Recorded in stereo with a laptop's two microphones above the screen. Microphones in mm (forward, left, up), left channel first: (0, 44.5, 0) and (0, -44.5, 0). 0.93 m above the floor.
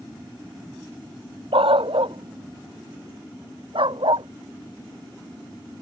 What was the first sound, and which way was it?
A dog barking, 85° right.